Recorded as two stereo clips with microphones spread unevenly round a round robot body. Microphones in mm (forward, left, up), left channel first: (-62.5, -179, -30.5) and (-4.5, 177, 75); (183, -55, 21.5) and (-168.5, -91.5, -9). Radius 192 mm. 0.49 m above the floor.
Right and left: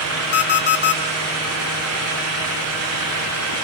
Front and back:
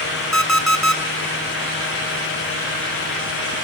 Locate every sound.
0.3 s an alarm clock: 85° right, 3.5 m